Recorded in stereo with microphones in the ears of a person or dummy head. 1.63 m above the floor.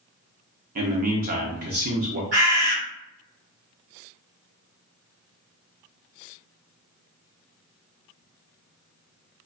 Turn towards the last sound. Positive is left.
turn(degrees=-50)  # may be behind; listen again after turning